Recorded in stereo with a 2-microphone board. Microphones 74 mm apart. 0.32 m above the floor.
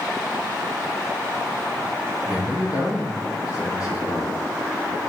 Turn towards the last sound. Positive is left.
turn(degrees=45)  # may be behind; listen again after turning